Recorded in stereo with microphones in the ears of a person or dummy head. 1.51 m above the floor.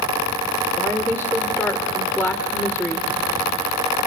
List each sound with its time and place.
0.8 s a woman speaking: 15° right (ahead or behind), 0.8 m